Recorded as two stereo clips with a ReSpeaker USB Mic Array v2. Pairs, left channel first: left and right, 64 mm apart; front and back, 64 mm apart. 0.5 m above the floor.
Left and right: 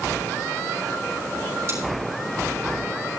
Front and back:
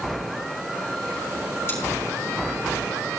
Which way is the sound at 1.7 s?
50° right.